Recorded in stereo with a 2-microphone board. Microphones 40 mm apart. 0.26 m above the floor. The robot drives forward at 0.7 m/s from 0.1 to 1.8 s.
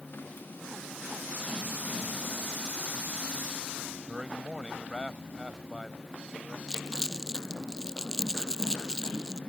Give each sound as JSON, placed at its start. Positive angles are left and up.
{"t": 4.1, "sound": "a man speaking", "side_deg": -15}
{"t": 6.7, "sound": "crumpling", "side_deg": 15}